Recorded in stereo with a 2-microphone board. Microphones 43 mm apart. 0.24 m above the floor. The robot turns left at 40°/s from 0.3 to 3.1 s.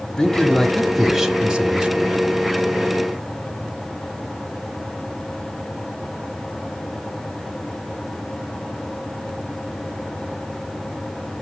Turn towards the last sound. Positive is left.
turn(degrees=-85)